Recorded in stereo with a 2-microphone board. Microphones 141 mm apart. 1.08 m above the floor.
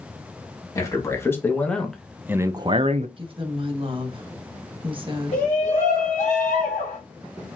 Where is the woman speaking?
40° right (ahead or behind), 1.0 m.